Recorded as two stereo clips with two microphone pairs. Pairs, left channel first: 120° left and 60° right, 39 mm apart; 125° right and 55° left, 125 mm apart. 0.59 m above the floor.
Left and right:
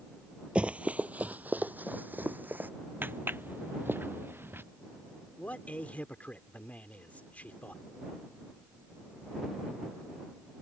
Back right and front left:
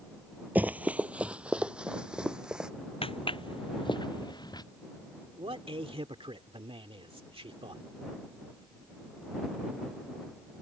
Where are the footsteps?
85° right; by 4.6 s 70° right.